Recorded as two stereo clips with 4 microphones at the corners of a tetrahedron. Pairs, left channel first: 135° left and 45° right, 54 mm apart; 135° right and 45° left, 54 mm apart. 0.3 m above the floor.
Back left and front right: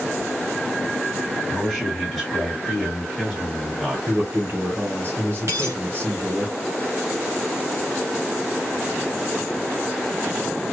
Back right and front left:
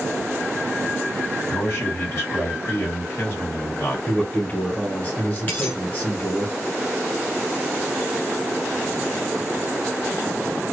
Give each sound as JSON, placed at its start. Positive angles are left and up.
{"t": 1.5, "sound": "a man speaking", "azimuth_deg": -125, "distance_m": 2.0}
{"t": 4.1, "sound": "a man speaking", "azimuth_deg": -70, "distance_m": 1.8}
{"t": 5.5, "sound": "a dropped coin", "azimuth_deg": -75, "distance_m": 1.7}